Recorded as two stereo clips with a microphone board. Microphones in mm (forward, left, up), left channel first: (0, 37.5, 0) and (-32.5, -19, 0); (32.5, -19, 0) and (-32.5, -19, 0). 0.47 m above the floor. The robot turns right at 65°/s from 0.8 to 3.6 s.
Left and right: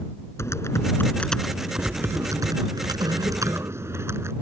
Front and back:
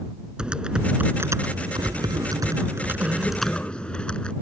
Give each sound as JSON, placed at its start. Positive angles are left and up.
{"t": 0.4, "sound": "typing on a keyboard", "azimuth_deg": 105}